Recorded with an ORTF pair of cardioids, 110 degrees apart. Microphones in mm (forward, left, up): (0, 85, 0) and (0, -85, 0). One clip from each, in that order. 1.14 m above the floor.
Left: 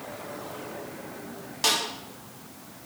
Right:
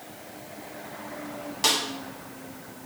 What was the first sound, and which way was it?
A snare drum, 5° right.